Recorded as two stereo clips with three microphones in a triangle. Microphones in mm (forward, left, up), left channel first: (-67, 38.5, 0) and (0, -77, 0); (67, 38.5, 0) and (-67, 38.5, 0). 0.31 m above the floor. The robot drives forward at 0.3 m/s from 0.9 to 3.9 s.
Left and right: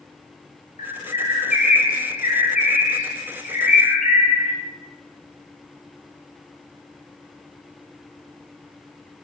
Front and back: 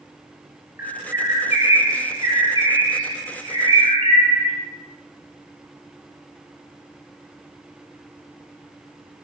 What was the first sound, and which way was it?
A bird, 105° left.